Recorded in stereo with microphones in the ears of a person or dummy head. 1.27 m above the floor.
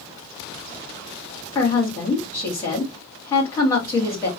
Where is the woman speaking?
25° left (ahead or behind), 2.0 m.